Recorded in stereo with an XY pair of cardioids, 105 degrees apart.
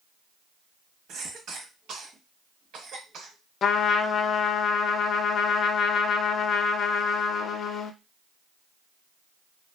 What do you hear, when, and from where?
1.1 s a cough: 70° right, 1.2 m
3.6 s a trumpet: 55° left, 0.5 m